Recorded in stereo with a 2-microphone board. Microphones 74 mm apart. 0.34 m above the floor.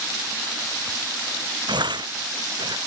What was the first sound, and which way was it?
Tearing paper, 75° right (ahead or behind).